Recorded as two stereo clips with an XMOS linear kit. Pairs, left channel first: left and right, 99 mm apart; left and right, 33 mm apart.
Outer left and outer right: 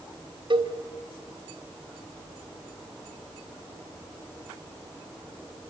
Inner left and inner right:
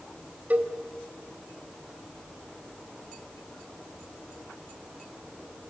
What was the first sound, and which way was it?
A cowbell, 60° right (ahead or behind).